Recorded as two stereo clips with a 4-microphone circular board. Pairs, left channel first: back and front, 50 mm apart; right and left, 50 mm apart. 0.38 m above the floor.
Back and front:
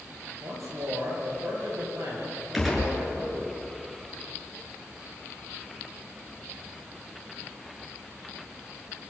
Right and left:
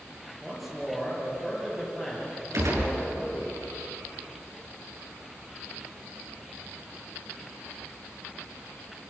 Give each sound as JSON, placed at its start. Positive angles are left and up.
{"t": 0.4, "sound": "a man speaking", "azimuth_deg": -5, "distance_m": 9.0}
{"t": 2.5, "sound": "a gunshot", "azimuth_deg": 90, "distance_m": 6.5}